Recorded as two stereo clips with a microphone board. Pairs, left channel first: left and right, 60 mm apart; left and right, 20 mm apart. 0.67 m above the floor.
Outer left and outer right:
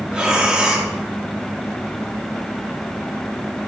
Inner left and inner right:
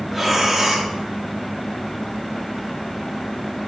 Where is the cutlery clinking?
I don't hear cutlery clinking.